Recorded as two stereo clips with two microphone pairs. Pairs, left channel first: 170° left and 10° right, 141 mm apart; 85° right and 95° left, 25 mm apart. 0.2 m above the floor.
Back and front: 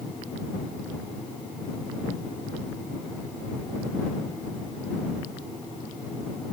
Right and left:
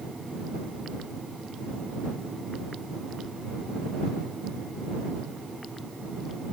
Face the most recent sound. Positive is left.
No sound to turn to.